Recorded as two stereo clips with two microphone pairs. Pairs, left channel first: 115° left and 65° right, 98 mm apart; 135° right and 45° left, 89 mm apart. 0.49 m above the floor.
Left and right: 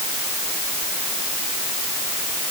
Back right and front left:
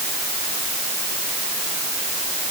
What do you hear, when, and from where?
Only background noise.